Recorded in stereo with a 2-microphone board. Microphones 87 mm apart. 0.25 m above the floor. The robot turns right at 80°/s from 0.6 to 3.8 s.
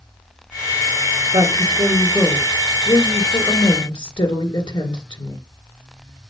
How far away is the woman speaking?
About 3 m.